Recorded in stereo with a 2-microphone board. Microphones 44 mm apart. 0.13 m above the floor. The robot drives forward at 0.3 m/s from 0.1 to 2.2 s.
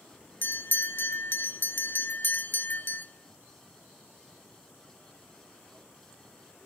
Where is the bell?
50° left (ahead or behind), 0.7 m.